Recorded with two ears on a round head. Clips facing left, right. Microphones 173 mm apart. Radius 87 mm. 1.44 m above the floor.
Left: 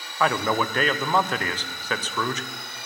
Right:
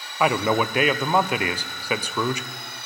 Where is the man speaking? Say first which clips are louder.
Right 2 dB; 10° right (ahead or behind), 0.6 m.